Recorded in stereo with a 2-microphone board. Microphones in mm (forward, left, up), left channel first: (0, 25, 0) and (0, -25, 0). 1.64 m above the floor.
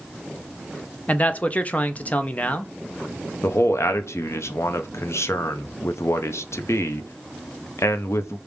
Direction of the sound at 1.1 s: 30° left (ahead or behind).